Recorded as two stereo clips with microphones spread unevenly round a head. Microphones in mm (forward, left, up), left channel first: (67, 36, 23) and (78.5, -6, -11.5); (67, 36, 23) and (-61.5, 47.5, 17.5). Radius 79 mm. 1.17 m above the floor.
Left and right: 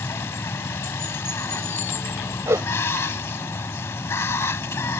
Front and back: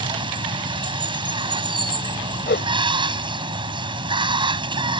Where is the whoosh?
40° right.